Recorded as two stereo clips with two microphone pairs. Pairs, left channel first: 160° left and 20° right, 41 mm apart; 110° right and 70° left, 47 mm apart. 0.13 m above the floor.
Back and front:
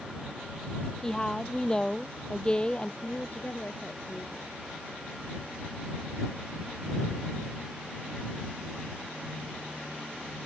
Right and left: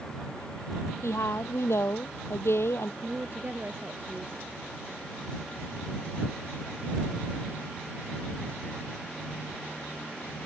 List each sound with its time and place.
1.0 s a woman speaking: 125° right; by 2.9 s 135° right
3.0 s a woman speaking: 115° left